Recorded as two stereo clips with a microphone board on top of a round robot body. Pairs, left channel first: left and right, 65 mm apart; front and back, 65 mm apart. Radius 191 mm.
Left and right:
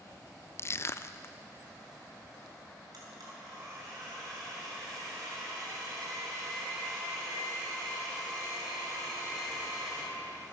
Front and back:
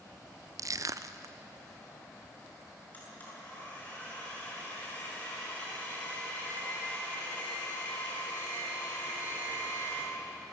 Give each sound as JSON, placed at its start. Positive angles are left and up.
{"t": 0.6, "sound": "crushing", "azimuth_deg": 140, "distance_m": 0.6}
{"t": 2.9, "sound": "a blender", "azimuth_deg": -65, "distance_m": 8.0}